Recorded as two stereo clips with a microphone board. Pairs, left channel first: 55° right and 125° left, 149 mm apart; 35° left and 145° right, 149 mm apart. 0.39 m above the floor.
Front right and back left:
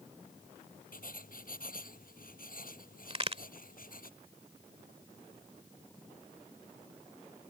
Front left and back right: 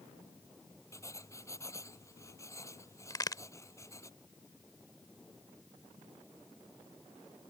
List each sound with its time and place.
0.9 s writing: 35° right
3.1 s a crack: 90° left